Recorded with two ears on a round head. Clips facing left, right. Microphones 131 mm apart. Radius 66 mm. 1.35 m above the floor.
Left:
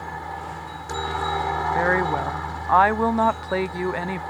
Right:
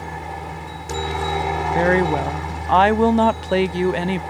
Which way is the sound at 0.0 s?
20° right (ahead or behind).